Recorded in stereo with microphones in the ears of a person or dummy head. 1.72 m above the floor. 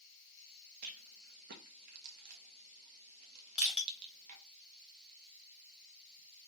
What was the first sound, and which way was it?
A rattle, 55° right (ahead or behind).